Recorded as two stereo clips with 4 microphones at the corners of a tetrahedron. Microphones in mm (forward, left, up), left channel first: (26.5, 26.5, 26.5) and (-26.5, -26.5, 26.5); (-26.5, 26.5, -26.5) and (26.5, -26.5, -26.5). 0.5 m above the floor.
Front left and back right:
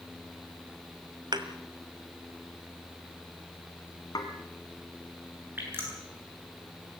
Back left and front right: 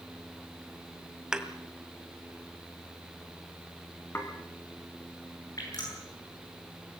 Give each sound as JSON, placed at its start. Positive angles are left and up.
{"t": 1.3, "sound": "a thud", "azimuth_deg": -125, "distance_m": 1.6}
{"t": 4.2, "sound": "dishes clattering", "azimuth_deg": 75, "distance_m": 3.5}
{"t": 5.6, "sound": "dripping", "azimuth_deg": 165, "distance_m": 8.5}